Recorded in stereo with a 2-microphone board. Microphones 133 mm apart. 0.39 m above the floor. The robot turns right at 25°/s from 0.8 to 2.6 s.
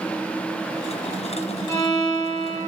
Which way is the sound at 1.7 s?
35° left (ahead or behind).